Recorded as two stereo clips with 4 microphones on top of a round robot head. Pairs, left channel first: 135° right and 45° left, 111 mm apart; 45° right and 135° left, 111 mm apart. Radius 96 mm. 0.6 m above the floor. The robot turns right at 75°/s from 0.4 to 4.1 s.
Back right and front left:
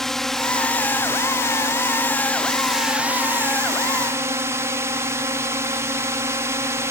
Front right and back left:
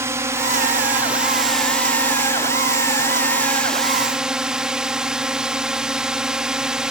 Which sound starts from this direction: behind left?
A drone, at 0.0 s.